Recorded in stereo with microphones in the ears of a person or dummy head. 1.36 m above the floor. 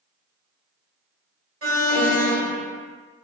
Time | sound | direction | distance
1.6 | an alarm | 55° right (ahead or behind) | 1.9 m